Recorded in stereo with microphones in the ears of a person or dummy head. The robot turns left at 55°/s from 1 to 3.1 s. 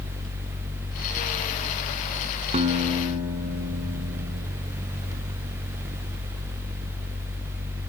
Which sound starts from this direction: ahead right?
A guitar, at 2.5 s.